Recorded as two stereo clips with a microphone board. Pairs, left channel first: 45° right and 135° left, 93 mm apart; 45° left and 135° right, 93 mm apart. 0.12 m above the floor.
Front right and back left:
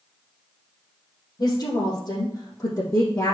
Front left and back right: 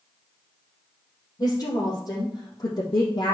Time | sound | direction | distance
1.4 | a woman speaking | straight ahead | 4 m